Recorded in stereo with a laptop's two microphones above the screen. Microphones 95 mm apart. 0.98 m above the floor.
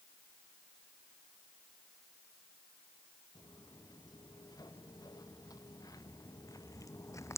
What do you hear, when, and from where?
3.4 s footsteps: 45° left (ahead or behind); by 7.4 s 35° left (ahead or behind)